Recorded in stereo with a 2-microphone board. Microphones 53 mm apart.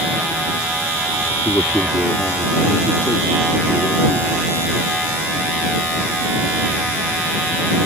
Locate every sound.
1.4 s a man speaking: 75° left (ahead or behind)